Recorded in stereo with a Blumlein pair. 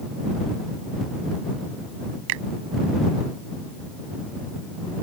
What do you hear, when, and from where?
2.3 s a finger snap: 45° right